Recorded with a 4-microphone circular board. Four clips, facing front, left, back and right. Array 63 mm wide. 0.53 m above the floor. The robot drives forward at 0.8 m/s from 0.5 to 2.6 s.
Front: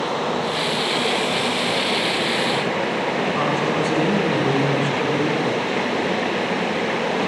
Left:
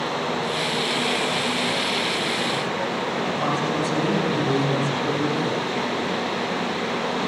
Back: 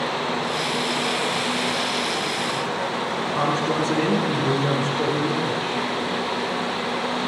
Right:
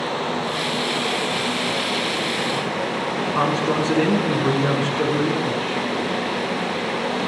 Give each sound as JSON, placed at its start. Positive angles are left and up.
{"t": 0.0, "sound": "running water", "azimuth_deg": -5, "distance_m": 5.0}
{"t": 3.4, "sound": "a man speaking", "azimuth_deg": -90, "distance_m": 7.5}